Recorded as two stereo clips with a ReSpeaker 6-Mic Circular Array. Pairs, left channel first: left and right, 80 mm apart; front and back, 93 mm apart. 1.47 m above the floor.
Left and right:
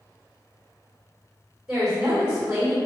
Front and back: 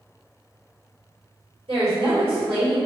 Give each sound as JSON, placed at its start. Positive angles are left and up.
{"t": 1.7, "sound": "a woman speaking", "azimuth_deg": -170, "distance_m": 1.6}